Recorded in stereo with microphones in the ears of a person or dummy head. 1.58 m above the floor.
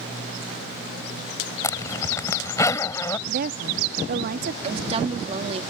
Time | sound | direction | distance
1.6 | a zipper | 20° left (ahead or behind) | ?
3.3 | a woman speaking | 45° right (ahead or behind) | ?
4.6 | a woman speaking | 40° right (ahead or behind) | ?